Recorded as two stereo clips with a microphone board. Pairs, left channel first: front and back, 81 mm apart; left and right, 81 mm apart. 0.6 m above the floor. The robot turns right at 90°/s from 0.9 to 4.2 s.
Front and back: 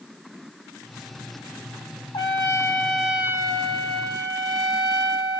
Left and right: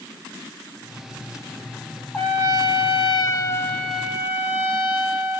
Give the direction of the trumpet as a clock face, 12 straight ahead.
12 o'clock.